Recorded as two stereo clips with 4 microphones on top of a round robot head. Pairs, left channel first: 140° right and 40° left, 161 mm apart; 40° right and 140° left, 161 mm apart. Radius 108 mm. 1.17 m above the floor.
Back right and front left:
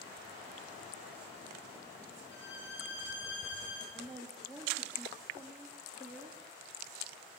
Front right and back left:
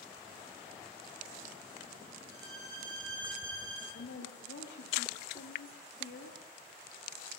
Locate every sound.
2.3 s a violin: 150° right, 2.5 m
3.9 s a woman speaking: 45° right, 2 m